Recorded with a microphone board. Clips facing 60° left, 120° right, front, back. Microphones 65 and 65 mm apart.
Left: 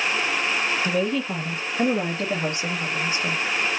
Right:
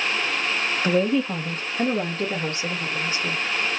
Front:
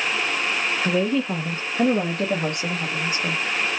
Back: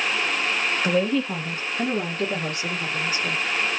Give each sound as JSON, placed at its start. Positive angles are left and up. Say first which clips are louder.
{"t": 0.8, "sound": "a woman speaking", "louder": "right 3 dB, even", "azimuth_deg": -110, "distance_m": 0.6}